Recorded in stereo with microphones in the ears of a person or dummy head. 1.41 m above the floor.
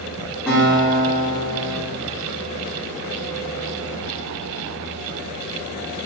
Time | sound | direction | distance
0.5 | a guitar | 5° left (ahead or behind) | 1.8 m